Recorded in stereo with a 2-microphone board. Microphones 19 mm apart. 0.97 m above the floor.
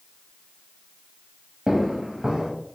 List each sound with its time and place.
1.7 s footsteps: 30° right (ahead or behind), 1.1 m